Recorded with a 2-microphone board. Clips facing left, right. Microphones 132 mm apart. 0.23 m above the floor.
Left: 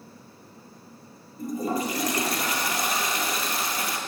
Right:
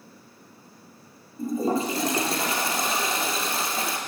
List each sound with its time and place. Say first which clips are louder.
1.4 s a toilet flushing: right 3 dB; 30° right (ahead or behind), 2 m